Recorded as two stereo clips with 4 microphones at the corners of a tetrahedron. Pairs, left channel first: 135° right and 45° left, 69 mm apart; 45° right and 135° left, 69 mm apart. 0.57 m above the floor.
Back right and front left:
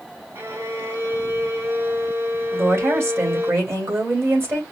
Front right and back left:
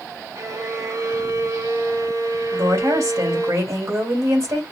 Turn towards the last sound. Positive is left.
turn(degrees=95)